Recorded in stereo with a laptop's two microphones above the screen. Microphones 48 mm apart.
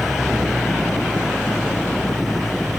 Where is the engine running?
Centre (ahead or behind).